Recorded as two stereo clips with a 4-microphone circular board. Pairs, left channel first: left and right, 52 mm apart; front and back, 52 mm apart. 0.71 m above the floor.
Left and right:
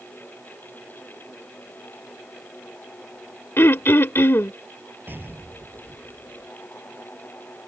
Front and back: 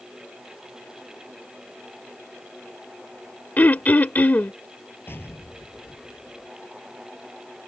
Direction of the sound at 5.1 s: 40° right.